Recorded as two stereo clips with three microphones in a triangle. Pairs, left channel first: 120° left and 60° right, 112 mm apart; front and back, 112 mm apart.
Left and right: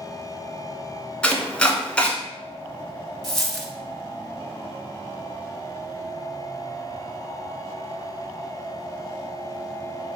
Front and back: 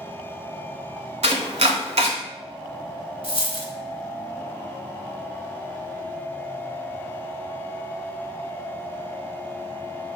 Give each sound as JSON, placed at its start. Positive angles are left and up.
{"t": 1.2, "sound": "chopping", "azimuth_deg": -160, "distance_m": 0.7}
{"t": 3.2, "sound": "a dropped coin", "azimuth_deg": 35, "distance_m": 0.6}